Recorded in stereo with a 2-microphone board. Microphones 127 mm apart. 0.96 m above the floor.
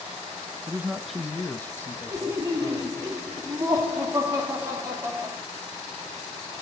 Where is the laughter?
25° right (ahead or behind), 2.5 m.